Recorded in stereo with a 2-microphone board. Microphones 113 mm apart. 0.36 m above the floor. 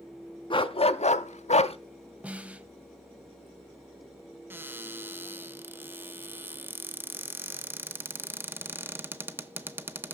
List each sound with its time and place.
0.5 s a dog barking: 45° left (ahead or behind), 0.7 m; by 1.8 s 60° left (ahead or behind), 0.6 m
2.2 s a snare drum: 10° right (ahead or behind), 0.6 m
4.5 s a cupboard door: 20° right (ahead or behind), 0.7 m